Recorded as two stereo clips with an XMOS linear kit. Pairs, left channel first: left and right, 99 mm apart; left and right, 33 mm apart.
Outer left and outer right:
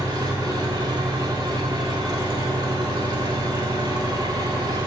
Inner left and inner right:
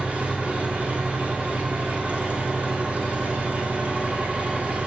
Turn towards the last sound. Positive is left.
turn(degrees=-45)  # may be behind; listen again after turning